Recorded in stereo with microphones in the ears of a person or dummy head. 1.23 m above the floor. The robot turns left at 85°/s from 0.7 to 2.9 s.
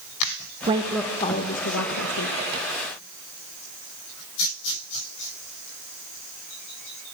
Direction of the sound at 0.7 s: 155° right.